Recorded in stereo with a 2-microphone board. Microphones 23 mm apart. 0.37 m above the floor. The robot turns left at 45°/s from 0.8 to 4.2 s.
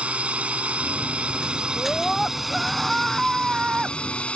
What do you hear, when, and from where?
0.0 s a drone: 95° right; by 4.4 s 110° left
1.8 s a scream: 25° left; by 4.0 s 75° right